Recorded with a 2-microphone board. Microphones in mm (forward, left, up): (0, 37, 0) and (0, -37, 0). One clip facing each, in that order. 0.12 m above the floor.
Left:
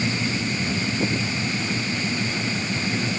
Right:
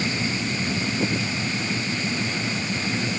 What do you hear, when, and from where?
Only background noise.